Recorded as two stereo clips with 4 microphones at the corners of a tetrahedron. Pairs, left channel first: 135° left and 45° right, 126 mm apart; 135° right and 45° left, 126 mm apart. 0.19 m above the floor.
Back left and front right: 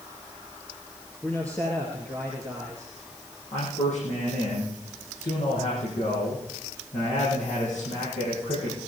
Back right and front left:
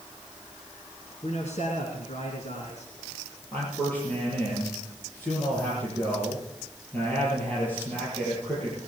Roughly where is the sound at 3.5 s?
Behind left.